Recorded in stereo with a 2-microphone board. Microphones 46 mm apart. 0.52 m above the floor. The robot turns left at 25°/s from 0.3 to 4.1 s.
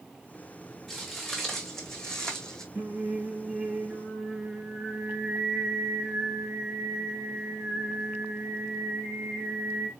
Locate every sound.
0.9 s footsteps: centre (ahead or behind), 3 m; by 2.6 s 15° left (ahead or behind), 1.7 m
2.8 s singing: 135° right, 3 m; by 9.9 s 170° right, 3 m